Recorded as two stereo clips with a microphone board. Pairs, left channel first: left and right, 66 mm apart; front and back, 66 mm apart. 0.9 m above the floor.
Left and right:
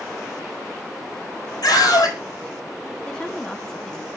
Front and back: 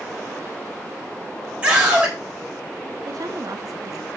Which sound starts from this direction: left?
A scream, at 1.6 s.